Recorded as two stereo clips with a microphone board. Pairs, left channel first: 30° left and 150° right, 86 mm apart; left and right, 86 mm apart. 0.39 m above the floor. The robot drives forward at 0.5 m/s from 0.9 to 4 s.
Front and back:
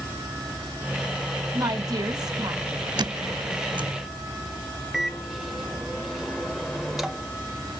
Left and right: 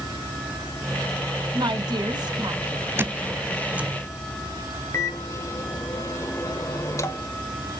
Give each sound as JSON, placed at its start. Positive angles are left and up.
{"t": 1.5, "sound": "a woman speaking", "azimuth_deg": -110, "distance_m": 3.0}
{"t": 3.0, "sound": "a squeak", "azimuth_deg": -150, "distance_m": 0.5}
{"t": 4.9, "sound": "a microwave", "azimuth_deg": 125, "distance_m": 1.3}